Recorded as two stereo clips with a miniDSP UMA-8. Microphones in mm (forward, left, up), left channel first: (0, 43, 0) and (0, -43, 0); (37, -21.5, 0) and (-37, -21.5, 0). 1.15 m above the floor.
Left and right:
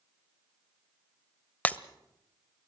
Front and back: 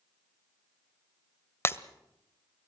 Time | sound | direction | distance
1.6 | breaking glass | 30° left | 1.1 m